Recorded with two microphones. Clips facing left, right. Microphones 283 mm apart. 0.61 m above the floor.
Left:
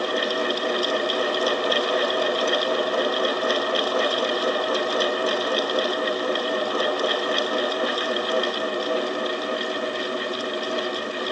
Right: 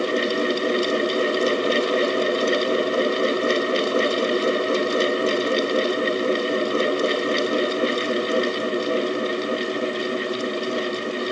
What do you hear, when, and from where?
Only background noise.